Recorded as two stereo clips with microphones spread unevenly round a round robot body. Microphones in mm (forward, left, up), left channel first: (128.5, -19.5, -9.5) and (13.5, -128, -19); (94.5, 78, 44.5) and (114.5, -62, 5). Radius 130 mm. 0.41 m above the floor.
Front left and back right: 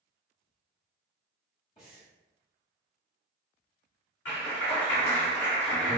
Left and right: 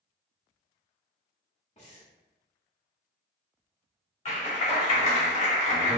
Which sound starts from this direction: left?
Breathing, at 1.8 s.